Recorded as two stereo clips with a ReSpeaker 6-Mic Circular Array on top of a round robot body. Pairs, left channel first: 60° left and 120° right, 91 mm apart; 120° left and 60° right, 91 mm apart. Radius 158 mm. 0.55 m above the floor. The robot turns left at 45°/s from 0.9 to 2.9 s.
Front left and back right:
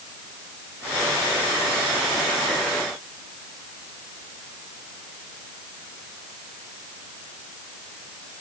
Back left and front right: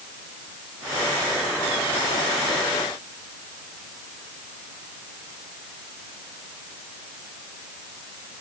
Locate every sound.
Only background noise.